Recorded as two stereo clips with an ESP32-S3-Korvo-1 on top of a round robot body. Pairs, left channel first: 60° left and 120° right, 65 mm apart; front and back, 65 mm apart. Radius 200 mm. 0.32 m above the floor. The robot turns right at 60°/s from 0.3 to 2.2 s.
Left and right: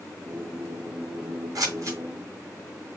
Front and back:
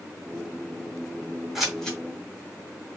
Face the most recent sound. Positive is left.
turn(degrees=-60)